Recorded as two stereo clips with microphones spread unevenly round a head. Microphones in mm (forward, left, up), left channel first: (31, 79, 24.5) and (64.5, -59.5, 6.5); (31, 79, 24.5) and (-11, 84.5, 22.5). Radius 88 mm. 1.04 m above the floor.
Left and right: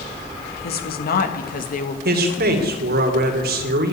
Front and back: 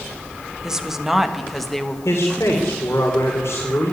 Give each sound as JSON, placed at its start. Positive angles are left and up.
{"t": 0.6, "sound": "a woman speaking", "azimuth_deg": 95, "distance_m": 2.0}
{"t": 2.0, "sound": "a man speaking", "azimuth_deg": -70, "distance_m": 3.0}